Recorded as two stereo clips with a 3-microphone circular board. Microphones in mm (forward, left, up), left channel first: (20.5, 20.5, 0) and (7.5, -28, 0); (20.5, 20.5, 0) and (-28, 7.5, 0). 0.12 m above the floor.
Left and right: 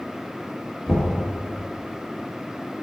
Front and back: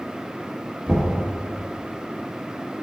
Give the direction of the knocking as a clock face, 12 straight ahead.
8 o'clock.